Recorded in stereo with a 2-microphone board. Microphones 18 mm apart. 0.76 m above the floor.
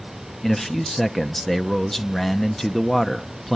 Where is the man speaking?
20° left (ahead or behind), 0.8 m.